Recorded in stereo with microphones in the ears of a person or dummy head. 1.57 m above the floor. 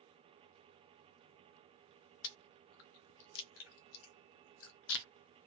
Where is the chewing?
70° left (ahead or behind), 0.6 m.